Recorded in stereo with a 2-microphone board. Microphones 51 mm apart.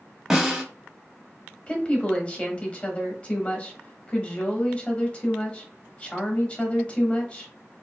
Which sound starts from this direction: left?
A woman speaking, at 1.7 s.